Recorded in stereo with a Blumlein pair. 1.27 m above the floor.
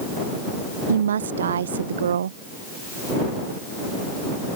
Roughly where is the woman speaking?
Ahead right.